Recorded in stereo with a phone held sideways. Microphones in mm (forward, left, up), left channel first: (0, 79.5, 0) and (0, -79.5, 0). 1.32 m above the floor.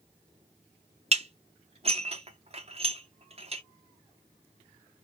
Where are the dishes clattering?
40° right (ahead or behind), 0.7 m.